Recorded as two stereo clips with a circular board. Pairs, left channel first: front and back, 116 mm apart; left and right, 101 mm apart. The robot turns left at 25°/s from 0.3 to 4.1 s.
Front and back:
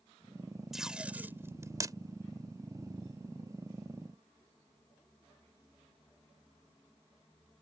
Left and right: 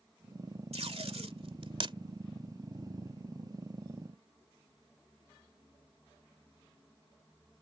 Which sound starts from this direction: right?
Tape being pulled, at 0.7 s.